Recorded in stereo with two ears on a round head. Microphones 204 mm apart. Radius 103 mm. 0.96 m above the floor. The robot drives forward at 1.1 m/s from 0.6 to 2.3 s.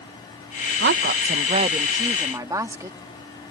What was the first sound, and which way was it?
A woman speaking, 45° right (ahead or behind).